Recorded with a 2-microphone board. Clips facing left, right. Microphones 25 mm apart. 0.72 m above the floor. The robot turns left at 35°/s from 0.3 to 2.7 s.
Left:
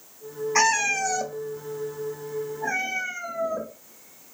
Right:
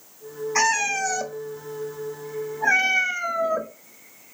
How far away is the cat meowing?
About 0.5 m.